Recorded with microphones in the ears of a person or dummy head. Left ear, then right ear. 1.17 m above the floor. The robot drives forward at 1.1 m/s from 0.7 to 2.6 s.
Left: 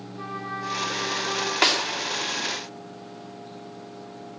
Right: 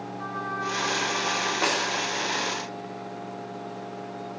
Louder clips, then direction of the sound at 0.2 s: Right 1 dB; 45° left (ahead or behind).